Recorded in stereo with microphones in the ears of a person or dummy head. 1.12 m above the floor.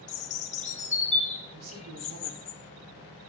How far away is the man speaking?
About 6 m.